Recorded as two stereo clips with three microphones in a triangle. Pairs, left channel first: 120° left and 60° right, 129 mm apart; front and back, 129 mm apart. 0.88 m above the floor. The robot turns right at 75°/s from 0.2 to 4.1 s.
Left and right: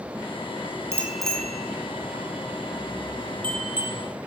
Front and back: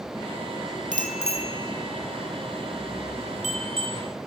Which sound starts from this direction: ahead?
A bicycle bell, at 0.9 s.